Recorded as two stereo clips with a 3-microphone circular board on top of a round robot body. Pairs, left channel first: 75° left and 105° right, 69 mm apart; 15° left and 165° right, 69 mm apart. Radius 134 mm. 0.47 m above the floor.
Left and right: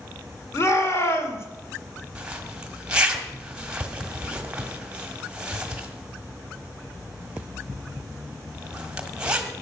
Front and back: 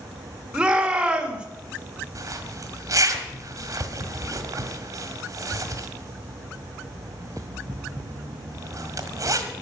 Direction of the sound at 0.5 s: 120° left.